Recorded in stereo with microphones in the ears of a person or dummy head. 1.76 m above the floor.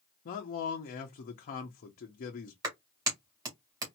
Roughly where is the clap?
Right.